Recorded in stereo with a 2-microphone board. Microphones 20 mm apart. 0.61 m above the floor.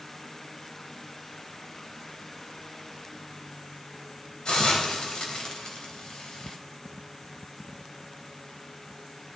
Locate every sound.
4.5 s a hiss: 55° left (ahead or behind), 3.5 m